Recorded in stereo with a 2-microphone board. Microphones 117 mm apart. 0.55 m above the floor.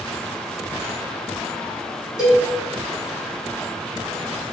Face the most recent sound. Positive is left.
turn(degrees=35)  # may be behind; listen again after turning